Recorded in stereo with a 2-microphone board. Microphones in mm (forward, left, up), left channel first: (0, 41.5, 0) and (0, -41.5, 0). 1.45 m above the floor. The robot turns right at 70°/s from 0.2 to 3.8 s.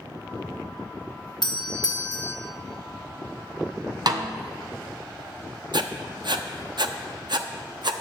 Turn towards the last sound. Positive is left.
turn(degrees=-65)  # may be behind; listen again after turning